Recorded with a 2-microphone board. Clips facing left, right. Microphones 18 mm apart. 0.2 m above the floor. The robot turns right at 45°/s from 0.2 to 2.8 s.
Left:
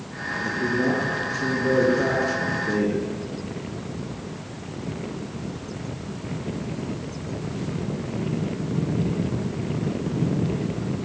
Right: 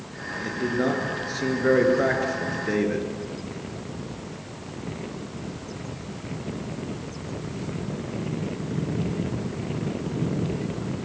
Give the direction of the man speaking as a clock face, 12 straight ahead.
5 o'clock.